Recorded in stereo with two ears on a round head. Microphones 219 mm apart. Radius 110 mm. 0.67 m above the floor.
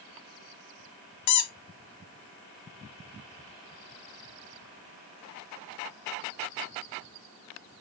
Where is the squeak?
80° left, 0.6 m.